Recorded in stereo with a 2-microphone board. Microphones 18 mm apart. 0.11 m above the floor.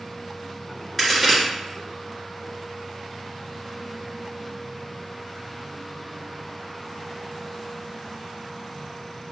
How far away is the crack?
About 1.6 m.